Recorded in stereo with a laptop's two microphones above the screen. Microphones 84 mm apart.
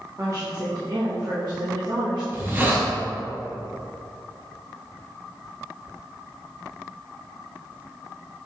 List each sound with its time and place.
0.2 s a woman speaking: 40° right (ahead or behind), 1.1 m; by 2.2 s 70° right (ahead or behind), 2 m
2.3 s a hiss: 25° right (ahead or behind), 1.4 m